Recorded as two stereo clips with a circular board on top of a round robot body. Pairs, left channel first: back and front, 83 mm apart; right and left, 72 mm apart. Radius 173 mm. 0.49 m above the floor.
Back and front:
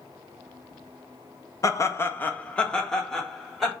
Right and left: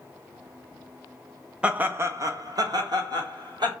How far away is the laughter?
About 0.8 m.